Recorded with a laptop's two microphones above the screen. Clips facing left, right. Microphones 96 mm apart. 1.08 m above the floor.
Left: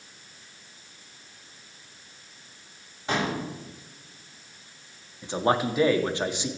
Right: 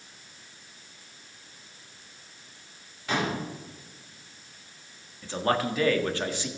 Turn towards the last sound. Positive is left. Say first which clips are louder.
# left 2 dB
turn(degrees=20)  # may be behind; listen again after turning